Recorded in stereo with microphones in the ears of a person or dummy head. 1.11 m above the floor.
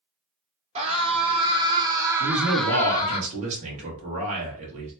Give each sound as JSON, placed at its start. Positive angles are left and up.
{"t": 0.8, "sound": "a scream", "side_deg": -30, "distance_m": 1.4}
{"t": 2.2, "sound": "a man speaking", "side_deg": -40, "distance_m": 1.6}